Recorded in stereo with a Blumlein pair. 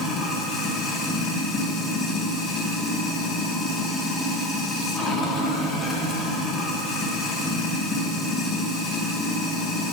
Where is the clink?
I don't hear a clink.